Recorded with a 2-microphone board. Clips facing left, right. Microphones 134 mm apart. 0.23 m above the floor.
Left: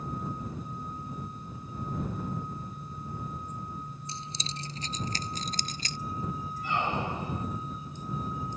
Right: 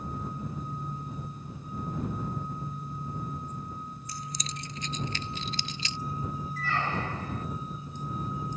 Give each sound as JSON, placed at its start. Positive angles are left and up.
{"t": 4.1, "sound": "keys jangling", "side_deg": 25}
{"t": 6.6, "sound": "a squeak", "side_deg": 15}